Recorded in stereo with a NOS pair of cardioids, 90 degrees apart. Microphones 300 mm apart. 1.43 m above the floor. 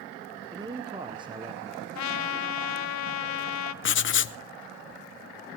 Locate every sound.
0.5 s a man speaking: 15° right, 0.8 m
1.9 s a trumpet: 65° left, 0.9 m
3.8 s writing: 40° left, 0.7 m